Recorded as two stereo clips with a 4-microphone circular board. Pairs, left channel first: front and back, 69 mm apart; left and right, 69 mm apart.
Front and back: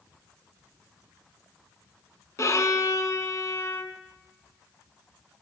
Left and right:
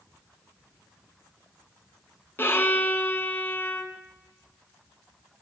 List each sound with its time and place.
2.4 s a violin: 35° left, 1.0 m